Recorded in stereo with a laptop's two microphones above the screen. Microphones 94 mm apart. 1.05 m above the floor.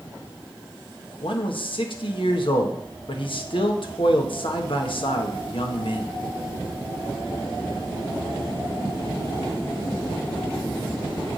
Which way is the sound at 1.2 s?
65° left (ahead or behind).